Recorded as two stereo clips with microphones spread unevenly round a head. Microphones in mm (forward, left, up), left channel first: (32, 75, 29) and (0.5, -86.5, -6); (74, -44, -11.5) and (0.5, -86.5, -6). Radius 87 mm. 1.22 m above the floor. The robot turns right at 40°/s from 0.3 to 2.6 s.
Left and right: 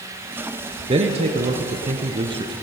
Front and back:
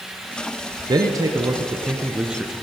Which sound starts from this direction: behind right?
A man speaking, at 0.9 s.